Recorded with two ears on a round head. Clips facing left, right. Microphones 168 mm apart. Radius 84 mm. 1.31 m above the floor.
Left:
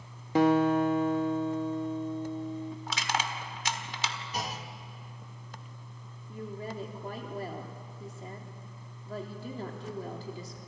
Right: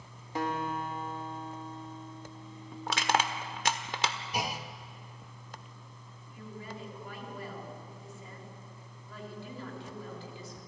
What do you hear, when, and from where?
0.3 s a guitar: 55° left (ahead or behind), 0.9 m
2.9 s crushing: 45° right (ahead or behind), 1.4 m
4.3 s a clunk: 10° right (ahead or behind), 0.9 m
6.3 s a woman speaking: 35° left (ahead or behind), 3 m